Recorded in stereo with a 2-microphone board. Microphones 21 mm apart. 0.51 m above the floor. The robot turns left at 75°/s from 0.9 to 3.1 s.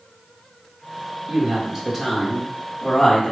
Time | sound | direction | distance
1.3 | a woman speaking | 115° right | 1.4 m